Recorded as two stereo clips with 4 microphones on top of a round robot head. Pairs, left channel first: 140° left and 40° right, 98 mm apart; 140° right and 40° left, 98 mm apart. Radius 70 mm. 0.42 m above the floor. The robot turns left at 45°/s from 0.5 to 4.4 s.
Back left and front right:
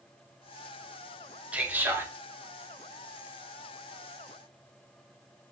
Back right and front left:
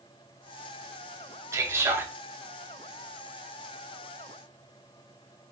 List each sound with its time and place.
1.5 s a man speaking: 20° left, 0.8 m; by 2.1 s straight ahead, 0.8 m